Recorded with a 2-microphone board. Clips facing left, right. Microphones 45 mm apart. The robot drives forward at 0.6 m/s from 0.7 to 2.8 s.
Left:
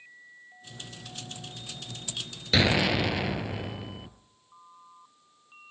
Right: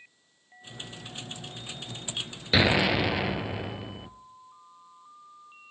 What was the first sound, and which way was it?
An explosion, 10° right (ahead or behind).